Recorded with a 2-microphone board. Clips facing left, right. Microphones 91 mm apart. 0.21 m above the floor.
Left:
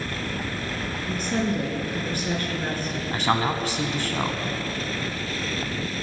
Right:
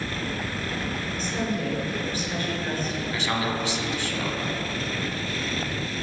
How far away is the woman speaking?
About 4 m.